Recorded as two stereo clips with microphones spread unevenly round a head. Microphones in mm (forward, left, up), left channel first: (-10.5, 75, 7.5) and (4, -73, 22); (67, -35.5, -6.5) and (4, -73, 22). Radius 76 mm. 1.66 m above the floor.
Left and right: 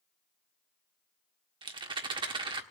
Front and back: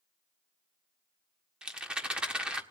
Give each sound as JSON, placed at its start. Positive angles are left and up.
{"t": 1.6, "sound": "a rattle", "azimuth_deg": -115, "distance_m": 1.5}